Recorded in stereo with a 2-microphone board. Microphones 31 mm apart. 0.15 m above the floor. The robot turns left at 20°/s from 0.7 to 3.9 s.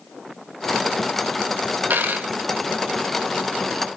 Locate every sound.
1.9 s a dropped coin: 75° right (ahead or behind), 0.6 m; by 2.3 s 70° right (ahead or behind), 0.6 m